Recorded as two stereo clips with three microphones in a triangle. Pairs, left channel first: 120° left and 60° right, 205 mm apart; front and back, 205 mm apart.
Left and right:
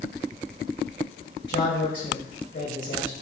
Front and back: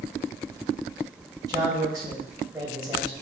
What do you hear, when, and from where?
1.5 s a man speaking: 110° left, 2 m